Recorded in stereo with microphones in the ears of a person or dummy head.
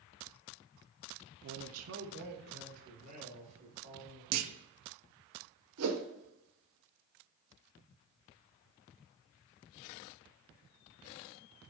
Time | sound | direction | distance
1.4 | a man speaking | 65° right (ahead or behind) | 0.6 m
4.3 | a clunk | 80° right | 0.5 m
5.8 | a whoosh | 85° right | 0.8 m